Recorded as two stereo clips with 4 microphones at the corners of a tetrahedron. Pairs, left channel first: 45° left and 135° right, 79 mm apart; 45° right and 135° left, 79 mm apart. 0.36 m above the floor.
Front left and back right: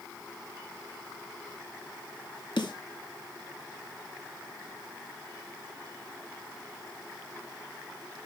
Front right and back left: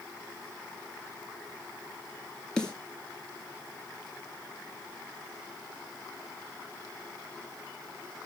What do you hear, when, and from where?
2.6 s a snare drum: 35° left, 1.8 m